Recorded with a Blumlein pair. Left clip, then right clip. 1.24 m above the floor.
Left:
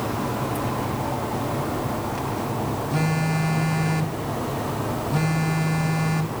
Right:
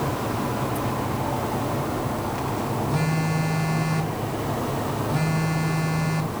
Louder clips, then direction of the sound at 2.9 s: Left 1 dB; 5° left.